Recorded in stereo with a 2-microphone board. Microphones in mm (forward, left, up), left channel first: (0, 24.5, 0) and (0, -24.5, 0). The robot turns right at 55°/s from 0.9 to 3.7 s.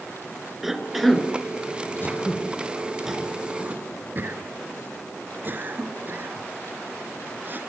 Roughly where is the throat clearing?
Left.